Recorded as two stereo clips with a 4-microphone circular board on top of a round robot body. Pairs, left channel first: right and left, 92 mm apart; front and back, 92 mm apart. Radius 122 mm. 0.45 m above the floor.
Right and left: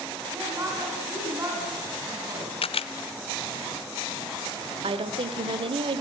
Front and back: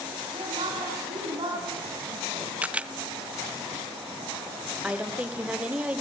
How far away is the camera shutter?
About 0.7 m.